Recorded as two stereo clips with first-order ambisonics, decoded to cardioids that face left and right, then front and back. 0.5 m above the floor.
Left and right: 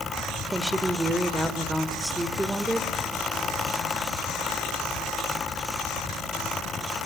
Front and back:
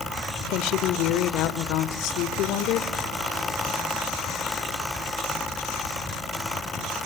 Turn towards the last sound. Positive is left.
turn(degrees=-10)